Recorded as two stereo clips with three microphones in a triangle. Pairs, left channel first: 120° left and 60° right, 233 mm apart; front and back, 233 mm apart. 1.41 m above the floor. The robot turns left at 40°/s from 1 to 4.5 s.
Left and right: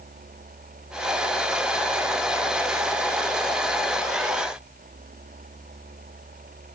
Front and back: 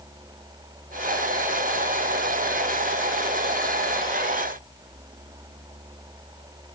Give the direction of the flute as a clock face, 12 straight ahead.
No flute in this recording.